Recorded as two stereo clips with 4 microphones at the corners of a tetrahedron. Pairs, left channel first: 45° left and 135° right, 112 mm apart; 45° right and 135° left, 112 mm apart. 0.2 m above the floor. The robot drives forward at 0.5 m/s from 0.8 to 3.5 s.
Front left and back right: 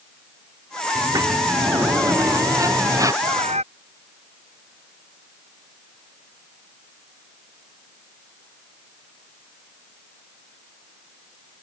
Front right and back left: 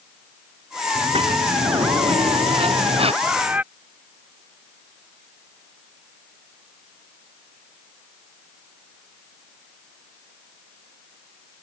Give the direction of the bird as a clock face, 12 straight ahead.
5 o'clock.